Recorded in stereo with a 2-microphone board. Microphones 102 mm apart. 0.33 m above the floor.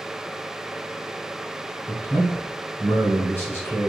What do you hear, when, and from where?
1.9 s a man speaking: 20° left (ahead or behind), 1.8 m